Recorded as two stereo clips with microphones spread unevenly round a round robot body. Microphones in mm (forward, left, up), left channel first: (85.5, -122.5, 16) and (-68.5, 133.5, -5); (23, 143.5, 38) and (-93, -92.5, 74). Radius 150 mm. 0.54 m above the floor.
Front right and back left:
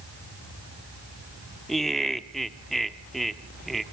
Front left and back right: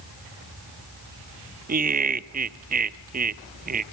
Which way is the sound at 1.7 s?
155° right.